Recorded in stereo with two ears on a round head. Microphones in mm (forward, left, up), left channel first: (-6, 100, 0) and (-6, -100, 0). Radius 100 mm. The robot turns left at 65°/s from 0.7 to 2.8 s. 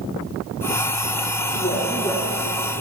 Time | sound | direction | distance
1.6 | a woman speaking | 65° left | 1.3 m